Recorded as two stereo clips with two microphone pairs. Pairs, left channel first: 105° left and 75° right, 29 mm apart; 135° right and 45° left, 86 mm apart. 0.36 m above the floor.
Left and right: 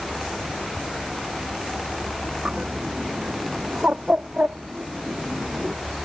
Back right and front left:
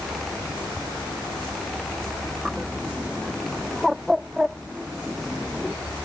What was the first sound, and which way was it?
A bird, 40° right.